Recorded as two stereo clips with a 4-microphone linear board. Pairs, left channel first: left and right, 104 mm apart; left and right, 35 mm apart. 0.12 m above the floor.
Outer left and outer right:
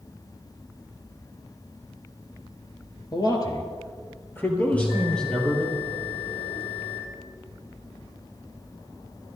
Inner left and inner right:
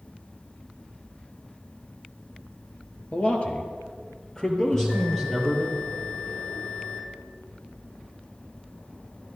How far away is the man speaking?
About 2 m.